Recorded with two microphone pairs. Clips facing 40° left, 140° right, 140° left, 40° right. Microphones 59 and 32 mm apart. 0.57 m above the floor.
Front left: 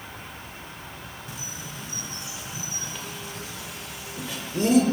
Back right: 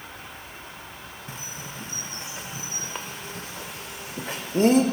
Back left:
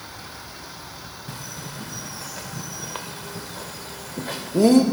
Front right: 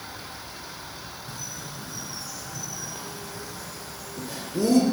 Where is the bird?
170° left, 0.9 m.